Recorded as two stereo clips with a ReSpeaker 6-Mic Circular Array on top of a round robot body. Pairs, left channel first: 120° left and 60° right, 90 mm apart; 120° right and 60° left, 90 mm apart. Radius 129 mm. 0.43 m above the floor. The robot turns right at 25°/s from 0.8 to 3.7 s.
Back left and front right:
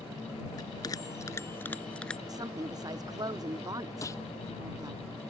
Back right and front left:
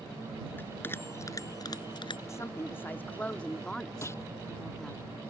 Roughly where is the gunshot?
Behind.